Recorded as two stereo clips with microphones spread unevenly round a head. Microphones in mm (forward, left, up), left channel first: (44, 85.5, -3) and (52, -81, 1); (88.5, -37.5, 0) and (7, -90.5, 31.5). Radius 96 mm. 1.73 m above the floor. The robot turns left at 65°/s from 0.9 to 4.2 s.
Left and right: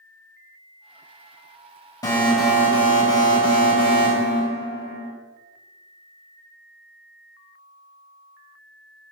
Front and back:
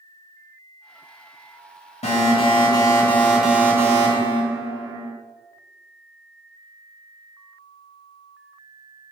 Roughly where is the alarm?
Ahead left.